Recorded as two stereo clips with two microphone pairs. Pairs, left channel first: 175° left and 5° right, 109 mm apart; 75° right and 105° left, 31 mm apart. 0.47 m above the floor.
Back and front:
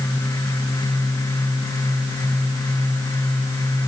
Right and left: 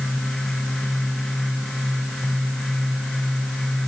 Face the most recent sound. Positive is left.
No sound to turn to.